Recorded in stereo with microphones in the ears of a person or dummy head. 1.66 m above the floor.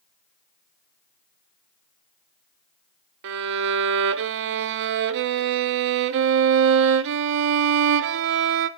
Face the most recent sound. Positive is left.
turn(degrees=-60)  # may be behind; listen again after turning